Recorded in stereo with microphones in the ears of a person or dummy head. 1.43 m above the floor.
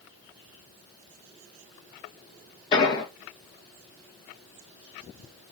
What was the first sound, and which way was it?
An explosion, 25° left (ahead or behind).